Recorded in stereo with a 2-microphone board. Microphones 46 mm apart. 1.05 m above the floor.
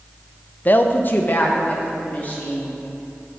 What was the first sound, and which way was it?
A woman speaking, 35° left (ahead or behind).